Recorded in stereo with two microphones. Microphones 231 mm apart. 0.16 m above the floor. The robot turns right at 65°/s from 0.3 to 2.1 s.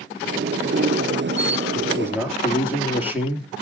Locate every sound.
1.8 s a man speaking: 30° right (ahead or behind), 3 m; by 3.6 s 10° right (ahead or behind), 3 m